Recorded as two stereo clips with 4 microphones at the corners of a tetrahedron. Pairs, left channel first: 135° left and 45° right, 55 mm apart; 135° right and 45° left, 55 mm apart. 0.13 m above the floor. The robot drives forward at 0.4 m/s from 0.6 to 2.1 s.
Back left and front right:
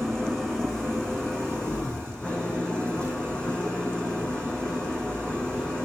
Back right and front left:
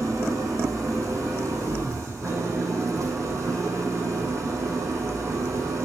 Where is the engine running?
55° left, 4 m; by 5.9 s 65° left, 3.5 m.